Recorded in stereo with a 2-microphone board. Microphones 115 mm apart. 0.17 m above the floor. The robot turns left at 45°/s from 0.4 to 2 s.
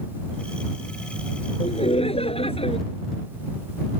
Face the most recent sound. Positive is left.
turn(degrees=60)  # may be behind; listen again after turning